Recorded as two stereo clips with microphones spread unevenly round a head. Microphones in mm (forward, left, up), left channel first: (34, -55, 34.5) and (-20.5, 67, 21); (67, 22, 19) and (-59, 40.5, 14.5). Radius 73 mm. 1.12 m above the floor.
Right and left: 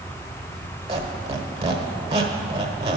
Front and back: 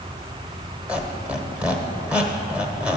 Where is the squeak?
95° left, 0.9 m.